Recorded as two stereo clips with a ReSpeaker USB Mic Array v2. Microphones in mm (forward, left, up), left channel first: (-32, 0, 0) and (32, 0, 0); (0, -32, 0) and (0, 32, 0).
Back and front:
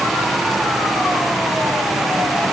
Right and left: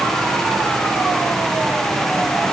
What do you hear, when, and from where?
Only background noise.